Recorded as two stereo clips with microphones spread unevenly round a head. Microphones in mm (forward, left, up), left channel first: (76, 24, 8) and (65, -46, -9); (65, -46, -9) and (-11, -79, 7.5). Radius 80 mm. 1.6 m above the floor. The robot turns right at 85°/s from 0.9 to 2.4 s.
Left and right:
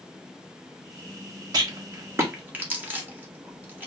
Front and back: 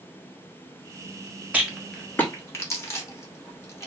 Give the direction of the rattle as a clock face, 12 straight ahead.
3 o'clock.